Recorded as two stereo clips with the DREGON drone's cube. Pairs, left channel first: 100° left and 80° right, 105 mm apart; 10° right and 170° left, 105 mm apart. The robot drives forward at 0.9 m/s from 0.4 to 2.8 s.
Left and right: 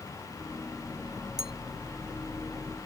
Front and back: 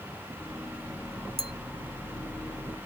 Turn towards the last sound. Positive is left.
turn(degrees=-165)